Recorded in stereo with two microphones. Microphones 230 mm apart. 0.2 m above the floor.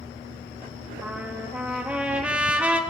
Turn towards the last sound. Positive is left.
turn(degrees=-5)  # may be behind; listen again after turning